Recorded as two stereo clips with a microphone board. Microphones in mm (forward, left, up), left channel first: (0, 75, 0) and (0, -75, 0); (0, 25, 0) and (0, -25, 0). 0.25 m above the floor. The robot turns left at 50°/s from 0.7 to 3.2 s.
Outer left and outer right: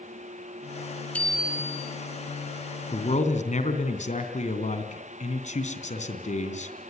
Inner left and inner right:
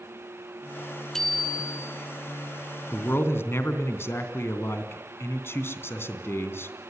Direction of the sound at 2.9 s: 40° left (ahead or behind).